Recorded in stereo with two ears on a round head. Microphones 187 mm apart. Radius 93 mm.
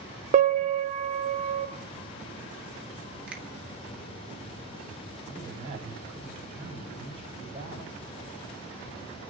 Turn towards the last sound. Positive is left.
turn(degrees=-30)  # may be behind; listen again after turning